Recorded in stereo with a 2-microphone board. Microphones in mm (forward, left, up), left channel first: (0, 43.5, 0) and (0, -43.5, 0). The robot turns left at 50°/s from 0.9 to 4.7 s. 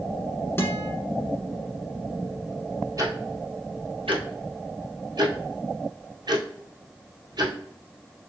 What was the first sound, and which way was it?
A guitar, 25° left (ahead or behind).